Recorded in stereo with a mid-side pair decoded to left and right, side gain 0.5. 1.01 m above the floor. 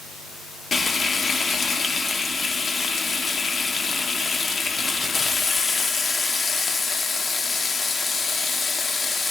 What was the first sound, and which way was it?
Frying, 30° left.